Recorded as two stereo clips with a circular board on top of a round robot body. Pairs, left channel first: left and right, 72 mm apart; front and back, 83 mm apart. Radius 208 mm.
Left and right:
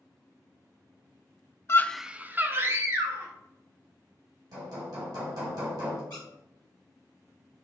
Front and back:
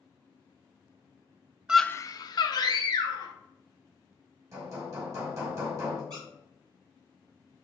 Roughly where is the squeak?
Behind left.